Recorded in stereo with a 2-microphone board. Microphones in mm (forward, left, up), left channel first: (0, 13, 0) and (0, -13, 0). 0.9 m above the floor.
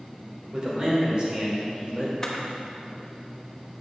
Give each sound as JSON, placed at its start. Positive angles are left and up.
{"t": 0.5, "sound": "a man speaking", "side_deg": -30, "distance_m": 3.0}
{"t": 2.2, "sound": "a camera shutter", "side_deg": 20, "distance_m": 1.2}